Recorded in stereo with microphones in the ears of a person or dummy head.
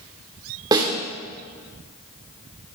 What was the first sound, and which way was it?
A snare drum, 20° right (ahead or behind).